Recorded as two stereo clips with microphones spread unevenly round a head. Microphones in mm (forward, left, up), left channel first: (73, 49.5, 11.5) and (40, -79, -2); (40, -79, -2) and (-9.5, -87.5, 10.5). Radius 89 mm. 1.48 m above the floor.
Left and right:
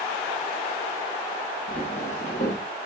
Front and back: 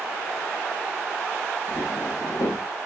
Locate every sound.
1.7 s footsteps: 40° left, 8 m